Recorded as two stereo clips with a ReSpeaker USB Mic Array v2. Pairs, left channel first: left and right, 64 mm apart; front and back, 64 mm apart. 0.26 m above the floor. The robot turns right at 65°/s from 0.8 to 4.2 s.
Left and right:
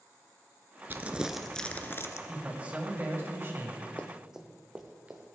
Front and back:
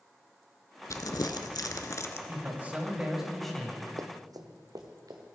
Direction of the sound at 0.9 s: 35° right.